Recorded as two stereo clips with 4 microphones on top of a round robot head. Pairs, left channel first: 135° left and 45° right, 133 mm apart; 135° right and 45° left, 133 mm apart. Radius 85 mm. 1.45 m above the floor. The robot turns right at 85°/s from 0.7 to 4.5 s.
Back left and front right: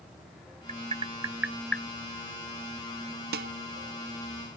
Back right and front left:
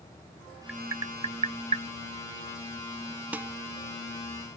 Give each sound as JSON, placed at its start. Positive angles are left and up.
{"t": 0.7, "sound": "tapping", "azimuth_deg": -35}
{"t": 3.3, "sound": "dishes clattering", "azimuth_deg": -35}